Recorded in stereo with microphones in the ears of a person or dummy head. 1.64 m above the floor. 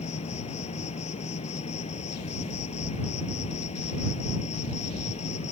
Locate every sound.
0.0 s an insect: 35° left (ahead or behind)